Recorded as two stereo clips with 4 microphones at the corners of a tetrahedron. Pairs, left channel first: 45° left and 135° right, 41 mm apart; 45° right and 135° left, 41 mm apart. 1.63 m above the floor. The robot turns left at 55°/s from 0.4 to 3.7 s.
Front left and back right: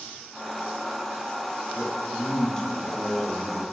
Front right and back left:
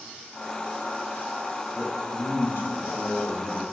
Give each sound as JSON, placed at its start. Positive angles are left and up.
{"t": 1.7, "sound": "a man speaking", "azimuth_deg": 15, "distance_m": 3.0}